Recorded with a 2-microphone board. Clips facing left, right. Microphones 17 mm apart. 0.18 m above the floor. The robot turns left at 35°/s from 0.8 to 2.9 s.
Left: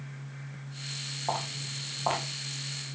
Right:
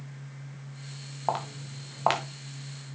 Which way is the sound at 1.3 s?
60° right (ahead or behind).